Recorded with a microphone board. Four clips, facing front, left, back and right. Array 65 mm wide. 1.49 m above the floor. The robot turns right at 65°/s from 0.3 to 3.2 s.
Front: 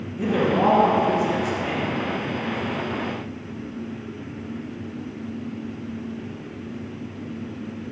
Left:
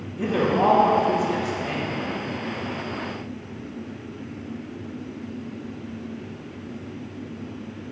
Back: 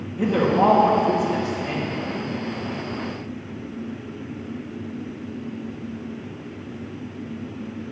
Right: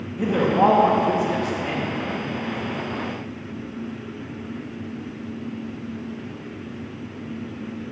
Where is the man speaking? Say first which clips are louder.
Right 2 dB, back 2 dB; 150° right, 2.5 m; by 2.0 s 40° right, 2.5 m.